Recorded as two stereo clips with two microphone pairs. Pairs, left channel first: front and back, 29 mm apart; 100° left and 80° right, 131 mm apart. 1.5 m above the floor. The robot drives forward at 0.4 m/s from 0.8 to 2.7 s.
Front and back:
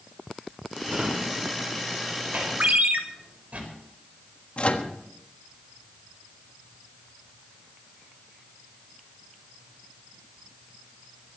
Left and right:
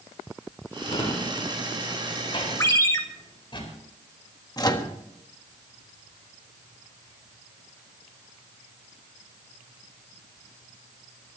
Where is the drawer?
145° left, 3.5 m; by 3.6 s 150° left, 4 m.